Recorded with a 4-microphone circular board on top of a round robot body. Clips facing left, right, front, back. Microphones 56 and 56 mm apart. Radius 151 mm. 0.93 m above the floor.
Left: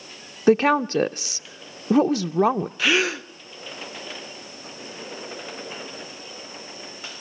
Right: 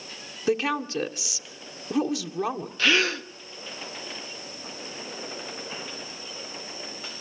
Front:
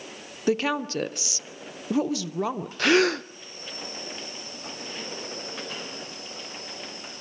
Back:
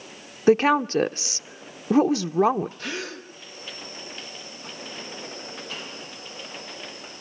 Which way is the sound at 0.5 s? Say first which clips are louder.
Left 8 dB, back 7 dB; 130° left.